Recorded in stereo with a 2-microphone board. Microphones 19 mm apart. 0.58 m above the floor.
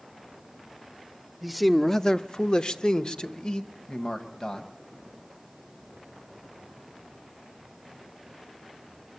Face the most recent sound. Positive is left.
turn(degrees=55)  # may be behind; listen again after turning